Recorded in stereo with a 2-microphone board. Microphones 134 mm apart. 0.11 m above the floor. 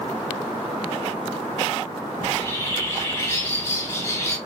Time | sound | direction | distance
2.2 | a bird | 25° left (ahead or behind) | 1.0 m